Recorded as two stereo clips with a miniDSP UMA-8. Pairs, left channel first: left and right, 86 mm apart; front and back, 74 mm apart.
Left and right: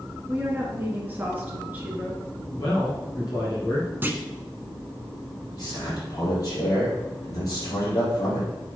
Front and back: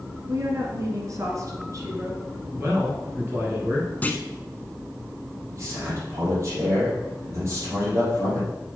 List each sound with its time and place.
0.3 s a woman speaking: 155° right, 1.9 m
2.5 s a man speaking: 125° left, 3 m
4.0 s a clunk: 45° right, 0.8 m
5.5 s a man speaking: 135° left, 4 m